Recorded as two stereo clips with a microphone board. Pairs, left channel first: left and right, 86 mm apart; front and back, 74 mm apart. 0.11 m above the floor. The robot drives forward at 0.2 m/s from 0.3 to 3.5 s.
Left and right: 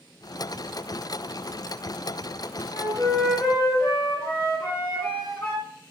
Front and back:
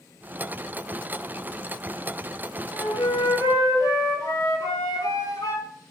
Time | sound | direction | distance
2.7 | a flute | 35° left | 2 m